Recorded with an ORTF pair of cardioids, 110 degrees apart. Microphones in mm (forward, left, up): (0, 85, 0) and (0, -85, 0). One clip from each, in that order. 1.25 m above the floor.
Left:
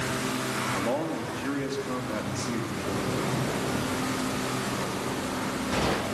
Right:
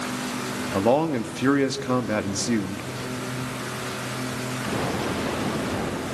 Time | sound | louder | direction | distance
0.7 | a man speaking | right 7 dB | 60° right | 1.8 m